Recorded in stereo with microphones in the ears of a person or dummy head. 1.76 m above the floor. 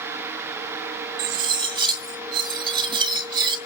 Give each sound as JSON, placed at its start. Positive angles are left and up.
{"t": 1.2, "sound": "cutlery clinking", "side_deg": -25, "distance_m": 1.9}